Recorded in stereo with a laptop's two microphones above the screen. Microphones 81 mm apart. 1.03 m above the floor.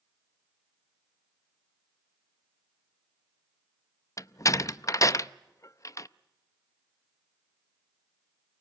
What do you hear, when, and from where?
4.2 s a door slam: 45° left (ahead or behind), 0.5 m